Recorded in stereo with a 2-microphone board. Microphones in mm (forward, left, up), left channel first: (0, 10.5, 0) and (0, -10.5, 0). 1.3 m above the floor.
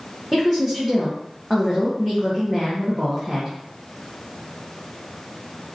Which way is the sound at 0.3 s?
20° right (ahead or behind).